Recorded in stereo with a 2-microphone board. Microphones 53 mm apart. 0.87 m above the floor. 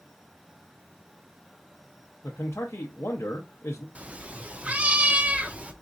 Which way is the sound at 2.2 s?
60° left (ahead or behind).